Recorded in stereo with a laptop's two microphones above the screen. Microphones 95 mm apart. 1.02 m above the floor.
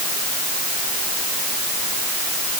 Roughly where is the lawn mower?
No lawn mower in this recording.